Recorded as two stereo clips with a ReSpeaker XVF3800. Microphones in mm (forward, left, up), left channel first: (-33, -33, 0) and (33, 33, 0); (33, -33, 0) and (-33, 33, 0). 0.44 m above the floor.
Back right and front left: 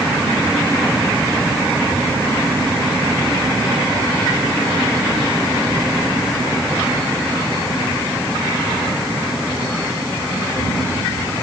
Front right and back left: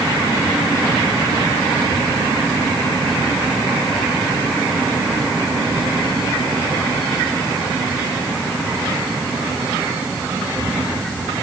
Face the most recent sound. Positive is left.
No sound to turn to.